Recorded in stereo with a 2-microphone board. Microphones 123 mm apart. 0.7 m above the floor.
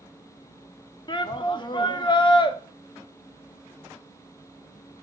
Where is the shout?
40° left (ahead or behind), 0.7 m.